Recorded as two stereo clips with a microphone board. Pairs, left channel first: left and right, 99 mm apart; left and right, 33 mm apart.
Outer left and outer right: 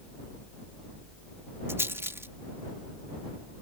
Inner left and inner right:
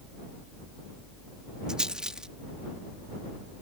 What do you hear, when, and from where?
1.7 s a rattle: 25° right (ahead or behind)